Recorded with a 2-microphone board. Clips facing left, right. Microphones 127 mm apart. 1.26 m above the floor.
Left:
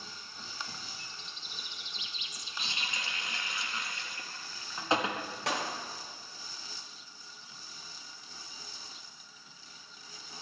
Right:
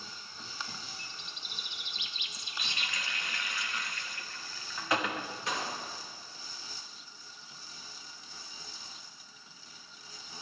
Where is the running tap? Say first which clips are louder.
Even; 25° left (ahead or behind), 1.3 m.